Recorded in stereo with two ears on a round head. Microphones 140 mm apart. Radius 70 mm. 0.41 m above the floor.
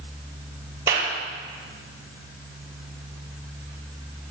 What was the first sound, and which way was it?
A clap, 20° right (ahead or behind).